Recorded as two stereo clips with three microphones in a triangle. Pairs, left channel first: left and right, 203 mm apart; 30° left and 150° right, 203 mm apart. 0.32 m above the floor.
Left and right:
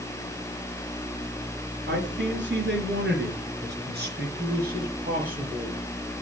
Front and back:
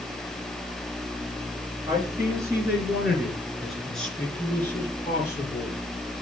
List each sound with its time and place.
1.9 s a man speaking: 80° right, 3 m; by 5.8 s 45° right, 4.5 m